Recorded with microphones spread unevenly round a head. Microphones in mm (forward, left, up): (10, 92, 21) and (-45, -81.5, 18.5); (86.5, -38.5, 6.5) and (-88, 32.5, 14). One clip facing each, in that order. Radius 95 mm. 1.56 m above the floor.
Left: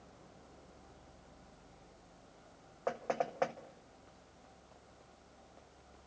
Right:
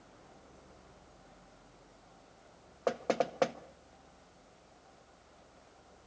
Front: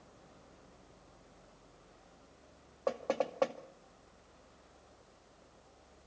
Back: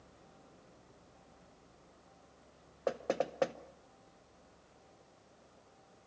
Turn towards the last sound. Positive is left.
turn(degrees=-135)